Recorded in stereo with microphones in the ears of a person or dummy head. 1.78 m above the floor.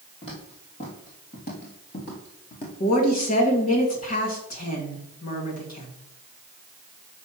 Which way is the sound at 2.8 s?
40° left (ahead or behind).